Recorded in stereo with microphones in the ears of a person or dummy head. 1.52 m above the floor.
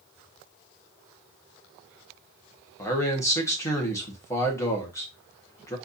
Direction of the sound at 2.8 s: 20° left (ahead or behind).